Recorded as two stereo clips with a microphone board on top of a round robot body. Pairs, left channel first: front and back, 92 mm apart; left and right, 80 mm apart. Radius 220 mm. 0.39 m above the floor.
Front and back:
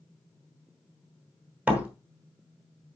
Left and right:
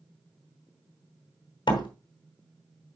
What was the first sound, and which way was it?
A door slam, 105° left.